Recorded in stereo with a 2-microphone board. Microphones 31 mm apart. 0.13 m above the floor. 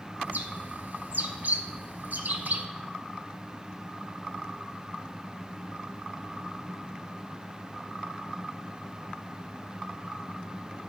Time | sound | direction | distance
0.2 | a bird | 60° right (ahead or behind) | 0.8 m